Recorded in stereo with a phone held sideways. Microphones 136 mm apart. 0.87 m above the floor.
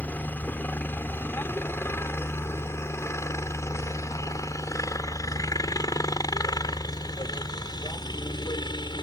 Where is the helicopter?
10° left (ahead or behind); by 9.0 s 35° left (ahead or behind).